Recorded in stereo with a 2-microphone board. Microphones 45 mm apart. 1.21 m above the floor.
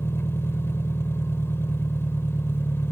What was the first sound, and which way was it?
An engine running, 65° left (ahead or behind).